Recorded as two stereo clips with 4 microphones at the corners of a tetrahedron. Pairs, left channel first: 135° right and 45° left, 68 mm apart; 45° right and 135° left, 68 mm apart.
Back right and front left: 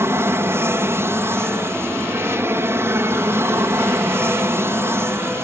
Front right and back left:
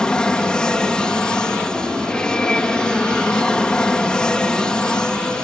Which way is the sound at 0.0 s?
25° left.